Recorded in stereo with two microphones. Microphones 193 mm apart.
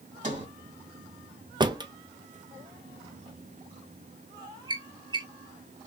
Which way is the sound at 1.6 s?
20° right (ahead or behind).